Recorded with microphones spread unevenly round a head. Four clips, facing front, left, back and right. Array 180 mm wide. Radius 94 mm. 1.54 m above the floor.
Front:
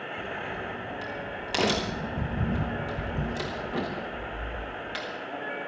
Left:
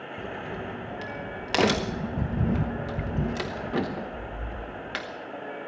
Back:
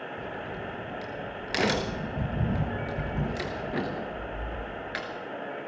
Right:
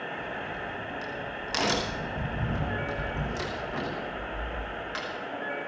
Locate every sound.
0.2 s a crack: 100° left, 1.0 m